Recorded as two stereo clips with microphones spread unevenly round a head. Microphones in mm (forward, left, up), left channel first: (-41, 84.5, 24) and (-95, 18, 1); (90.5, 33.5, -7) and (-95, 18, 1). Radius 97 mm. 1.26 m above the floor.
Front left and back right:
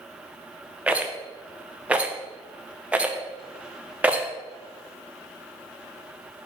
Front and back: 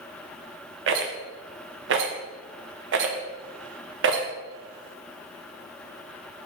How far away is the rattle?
About 0.7 m.